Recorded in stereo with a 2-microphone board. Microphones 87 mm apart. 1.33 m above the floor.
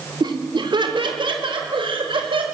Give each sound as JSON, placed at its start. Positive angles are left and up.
{"t": 0.2, "sound": "laughter", "side_deg": -60, "distance_m": 2.5}